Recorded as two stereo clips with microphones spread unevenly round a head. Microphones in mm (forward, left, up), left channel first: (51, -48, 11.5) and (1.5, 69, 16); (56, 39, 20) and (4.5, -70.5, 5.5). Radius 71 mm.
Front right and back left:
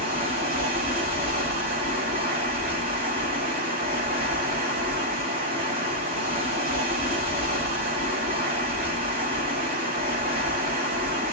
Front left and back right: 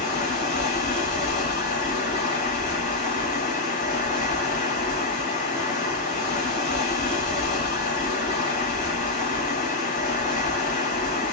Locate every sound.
0.0 s running water: 105° left, 1.7 m